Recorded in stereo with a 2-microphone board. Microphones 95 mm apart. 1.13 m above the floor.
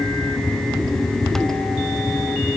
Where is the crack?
I don't hear a crack.